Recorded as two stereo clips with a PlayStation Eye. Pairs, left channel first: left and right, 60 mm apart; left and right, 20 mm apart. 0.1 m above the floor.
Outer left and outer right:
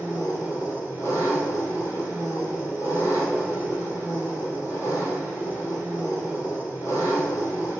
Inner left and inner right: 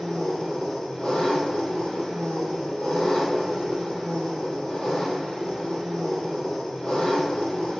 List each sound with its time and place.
0.0 s an engine running: 60° left (ahead or behind), 1.0 m